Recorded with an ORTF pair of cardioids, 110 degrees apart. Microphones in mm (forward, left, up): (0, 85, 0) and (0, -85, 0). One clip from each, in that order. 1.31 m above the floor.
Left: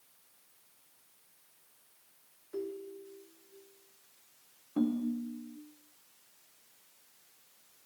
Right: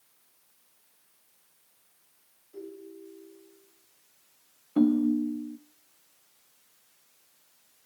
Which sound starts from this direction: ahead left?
A ringtone, at 2.5 s.